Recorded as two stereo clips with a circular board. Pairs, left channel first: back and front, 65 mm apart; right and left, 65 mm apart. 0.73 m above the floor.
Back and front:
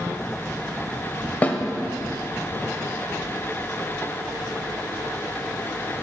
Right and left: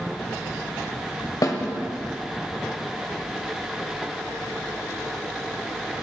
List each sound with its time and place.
1.4 s a snare drum: 120° right, 1.1 m